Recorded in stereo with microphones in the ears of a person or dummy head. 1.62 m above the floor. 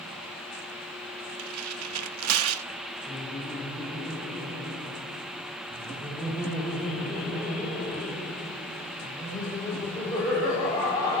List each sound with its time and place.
1.4 s tearing paper: 80° right, 0.7 m
3.1 s laughter: 20° left (ahead or behind), 5.5 m